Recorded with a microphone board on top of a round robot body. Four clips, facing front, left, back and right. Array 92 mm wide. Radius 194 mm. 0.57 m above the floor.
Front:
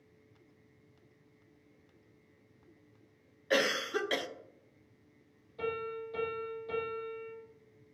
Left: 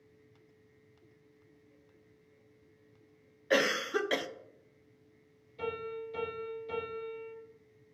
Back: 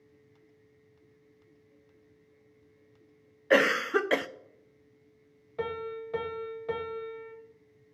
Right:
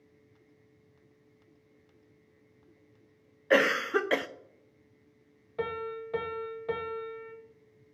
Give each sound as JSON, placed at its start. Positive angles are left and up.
{"t": 3.5, "sound": "a cough", "azimuth_deg": -145, "distance_m": 0.7}
{"t": 5.6, "sound": "a piano", "azimuth_deg": -130, "distance_m": 1.0}